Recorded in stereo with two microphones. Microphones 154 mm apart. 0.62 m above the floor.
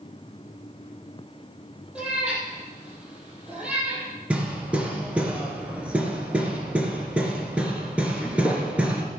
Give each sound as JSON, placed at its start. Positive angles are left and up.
{"t": 1.9, "sound": "a cat meowing", "side_deg": -5, "distance_m": 5.5}
{"t": 4.3, "sound": "hammering", "side_deg": -10, "distance_m": 2.5}